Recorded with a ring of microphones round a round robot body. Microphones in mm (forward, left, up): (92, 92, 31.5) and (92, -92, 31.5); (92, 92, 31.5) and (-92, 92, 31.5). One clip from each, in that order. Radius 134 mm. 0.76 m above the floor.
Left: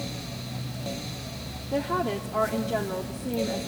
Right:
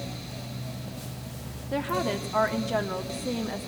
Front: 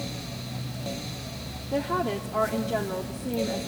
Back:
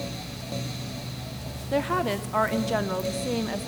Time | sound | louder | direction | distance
1.7 | a woman speaking | left 1 dB, back 2 dB | 145° right | 1.2 m